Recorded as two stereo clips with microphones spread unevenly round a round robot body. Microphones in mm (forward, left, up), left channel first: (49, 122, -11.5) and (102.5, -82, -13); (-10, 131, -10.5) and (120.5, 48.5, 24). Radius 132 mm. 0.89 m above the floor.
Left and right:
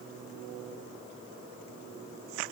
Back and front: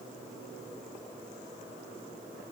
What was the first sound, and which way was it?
Only background noise.